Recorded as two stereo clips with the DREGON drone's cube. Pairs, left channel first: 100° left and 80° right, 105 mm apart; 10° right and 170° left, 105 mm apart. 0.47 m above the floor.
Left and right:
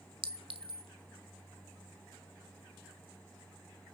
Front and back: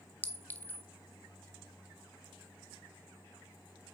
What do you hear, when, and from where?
0.2 s a clink: 80° right, 1.3 m